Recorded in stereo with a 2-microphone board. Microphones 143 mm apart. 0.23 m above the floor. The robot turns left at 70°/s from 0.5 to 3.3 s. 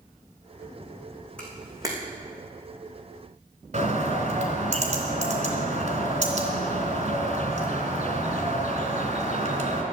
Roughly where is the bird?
Right.